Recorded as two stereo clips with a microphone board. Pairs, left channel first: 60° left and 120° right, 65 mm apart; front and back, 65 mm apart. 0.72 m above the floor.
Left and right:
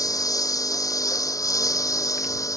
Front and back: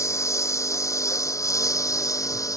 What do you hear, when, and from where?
0.0 s a lawn mower: 40° left; by 2.6 s 30° left